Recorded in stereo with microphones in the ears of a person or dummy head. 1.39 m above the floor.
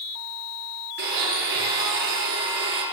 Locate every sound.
1.0 s a blender: 60° right (ahead or behind), 8 m